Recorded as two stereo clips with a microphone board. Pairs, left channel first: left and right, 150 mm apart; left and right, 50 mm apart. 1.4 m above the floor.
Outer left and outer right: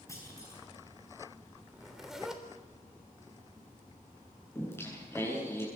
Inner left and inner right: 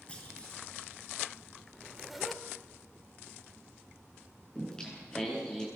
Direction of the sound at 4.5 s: 15° left (ahead or behind).